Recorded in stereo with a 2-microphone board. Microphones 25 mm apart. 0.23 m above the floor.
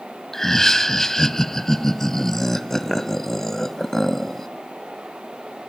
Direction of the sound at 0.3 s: 15° left (ahead or behind).